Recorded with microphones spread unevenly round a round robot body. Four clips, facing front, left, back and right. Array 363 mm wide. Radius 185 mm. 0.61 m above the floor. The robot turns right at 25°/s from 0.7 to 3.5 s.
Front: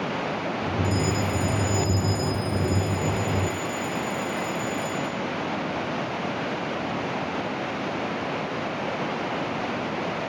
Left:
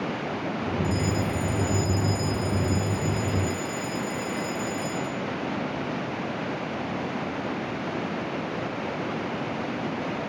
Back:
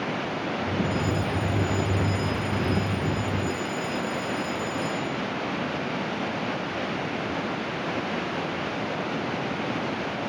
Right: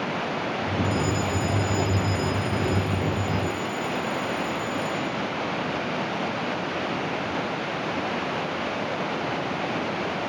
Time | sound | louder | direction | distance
0.8 | a fire alarm | right 2 dB, front 1 dB | 35° left | ?